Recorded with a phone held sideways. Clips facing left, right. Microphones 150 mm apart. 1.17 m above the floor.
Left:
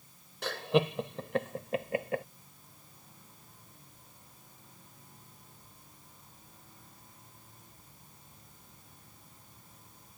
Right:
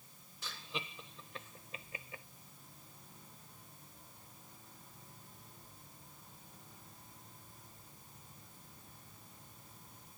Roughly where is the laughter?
Left.